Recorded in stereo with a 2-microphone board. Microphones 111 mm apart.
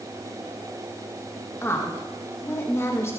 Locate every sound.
1.6 s a woman speaking: 25° left (ahead or behind), 1.3 m